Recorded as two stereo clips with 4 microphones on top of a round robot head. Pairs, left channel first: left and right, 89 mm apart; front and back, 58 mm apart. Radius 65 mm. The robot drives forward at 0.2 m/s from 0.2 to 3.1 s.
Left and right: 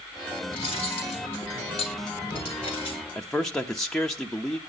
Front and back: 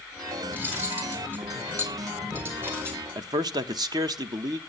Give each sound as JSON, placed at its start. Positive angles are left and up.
{"t": 0.5, "sound": "cutlery clinking", "azimuth_deg": 125, "distance_m": 3.5}
{"t": 3.1, "sound": "a man speaking", "azimuth_deg": 175, "distance_m": 0.7}